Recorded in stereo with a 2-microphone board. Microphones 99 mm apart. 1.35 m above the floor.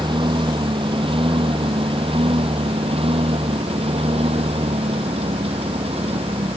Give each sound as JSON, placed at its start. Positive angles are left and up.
{"t": 0.0, "sound": "a lawn mower", "side_deg": -55}